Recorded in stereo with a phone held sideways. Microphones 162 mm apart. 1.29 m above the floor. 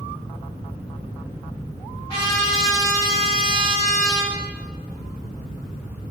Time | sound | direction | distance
2.1 | a trumpet | 30° left (ahead or behind) | 1.7 m